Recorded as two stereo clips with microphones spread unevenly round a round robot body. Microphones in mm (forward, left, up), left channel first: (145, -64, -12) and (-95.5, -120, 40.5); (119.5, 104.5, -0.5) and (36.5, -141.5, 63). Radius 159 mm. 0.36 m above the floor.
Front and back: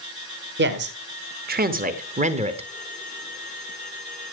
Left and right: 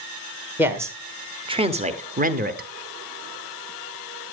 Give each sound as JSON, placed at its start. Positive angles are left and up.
{"t": 0.6, "sound": "a man speaking", "azimuth_deg": 155, "distance_m": 1.5}